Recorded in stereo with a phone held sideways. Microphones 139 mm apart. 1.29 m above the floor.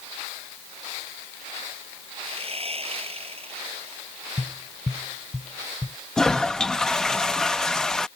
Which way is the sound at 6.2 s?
5° left (ahead or behind).